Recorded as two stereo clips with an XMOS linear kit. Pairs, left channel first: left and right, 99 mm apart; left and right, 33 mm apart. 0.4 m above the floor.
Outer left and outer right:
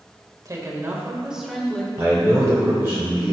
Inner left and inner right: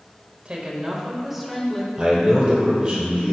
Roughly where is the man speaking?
Right.